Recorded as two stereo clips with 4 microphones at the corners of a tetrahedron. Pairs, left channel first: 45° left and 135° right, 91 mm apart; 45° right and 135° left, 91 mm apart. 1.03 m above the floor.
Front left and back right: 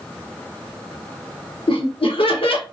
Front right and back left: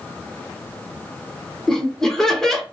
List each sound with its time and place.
1.7 s laughter: 40° left, 0.8 m